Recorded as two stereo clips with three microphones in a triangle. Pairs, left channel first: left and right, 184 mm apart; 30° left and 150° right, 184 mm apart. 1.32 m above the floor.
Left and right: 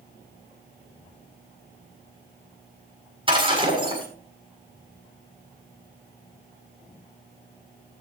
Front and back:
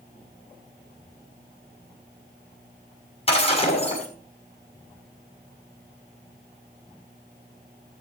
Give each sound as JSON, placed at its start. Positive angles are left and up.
{"t": 3.3, "sound": "breaking glass", "azimuth_deg": -30, "distance_m": 6.5}